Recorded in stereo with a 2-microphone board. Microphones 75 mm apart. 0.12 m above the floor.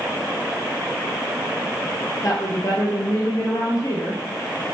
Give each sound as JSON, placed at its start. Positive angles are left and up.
{"t": 2.2, "sound": "a woman speaking", "side_deg": 50, "distance_m": 2.0}